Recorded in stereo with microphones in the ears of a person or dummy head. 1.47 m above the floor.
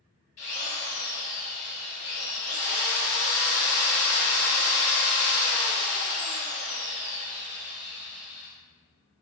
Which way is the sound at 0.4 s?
45° left (ahead or behind).